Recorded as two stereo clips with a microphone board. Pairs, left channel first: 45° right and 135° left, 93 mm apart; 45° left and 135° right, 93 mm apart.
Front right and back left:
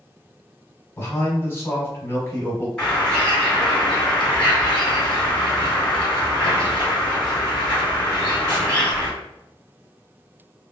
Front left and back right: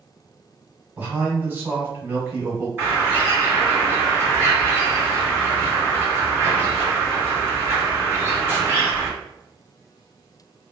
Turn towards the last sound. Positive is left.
turn(degrees=-120)